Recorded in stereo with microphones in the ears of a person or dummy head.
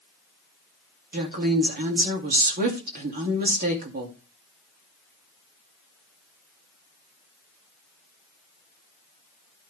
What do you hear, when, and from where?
1.1 s a woman speaking: 45° right (ahead or behind), 2.5 m